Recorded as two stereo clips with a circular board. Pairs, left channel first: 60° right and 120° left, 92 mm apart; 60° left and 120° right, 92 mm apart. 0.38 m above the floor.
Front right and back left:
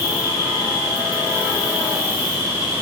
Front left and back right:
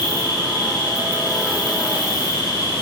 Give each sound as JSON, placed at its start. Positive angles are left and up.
{"t": 0.0, "sound": "an insect", "azimuth_deg": 70, "distance_m": 1.8}